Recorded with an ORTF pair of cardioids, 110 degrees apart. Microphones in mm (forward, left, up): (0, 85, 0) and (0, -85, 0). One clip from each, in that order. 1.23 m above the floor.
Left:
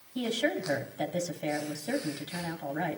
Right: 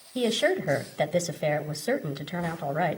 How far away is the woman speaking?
About 1.2 m.